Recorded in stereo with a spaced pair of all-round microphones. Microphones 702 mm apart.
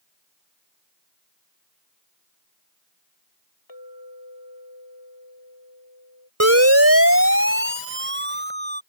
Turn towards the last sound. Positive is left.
turn(degrees=-15)  # may be behind; listen again after turning